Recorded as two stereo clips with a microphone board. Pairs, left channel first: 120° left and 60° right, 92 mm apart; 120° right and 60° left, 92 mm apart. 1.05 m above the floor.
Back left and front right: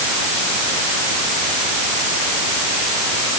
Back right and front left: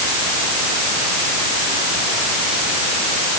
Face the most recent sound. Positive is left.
No sound to turn to.